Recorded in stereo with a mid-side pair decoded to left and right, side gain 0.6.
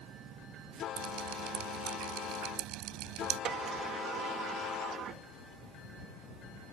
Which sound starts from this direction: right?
Dripping, at 1.0 s.